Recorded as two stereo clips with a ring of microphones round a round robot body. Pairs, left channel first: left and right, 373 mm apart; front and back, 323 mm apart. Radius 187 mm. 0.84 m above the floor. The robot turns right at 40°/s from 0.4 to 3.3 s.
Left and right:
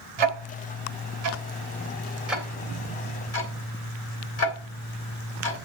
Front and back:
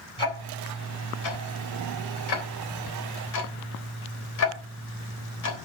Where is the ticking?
80° right, 3 m; by 5.6 s 40° left, 3 m.